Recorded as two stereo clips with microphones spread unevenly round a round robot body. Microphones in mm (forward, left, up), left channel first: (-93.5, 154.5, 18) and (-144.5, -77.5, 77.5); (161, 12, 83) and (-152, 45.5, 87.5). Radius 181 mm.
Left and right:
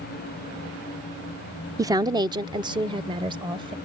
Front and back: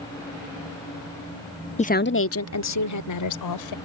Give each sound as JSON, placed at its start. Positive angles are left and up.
{"t": 1.8, "sound": "a woman speaking", "azimuth_deg": -10}